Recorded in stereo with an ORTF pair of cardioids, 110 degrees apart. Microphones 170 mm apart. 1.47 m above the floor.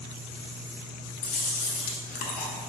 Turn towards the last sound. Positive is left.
turn(degrees=65)